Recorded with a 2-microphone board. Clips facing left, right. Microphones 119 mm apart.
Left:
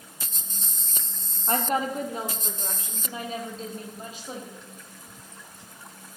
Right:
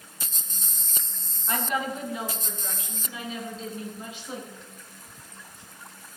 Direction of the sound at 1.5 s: 40° left (ahead or behind).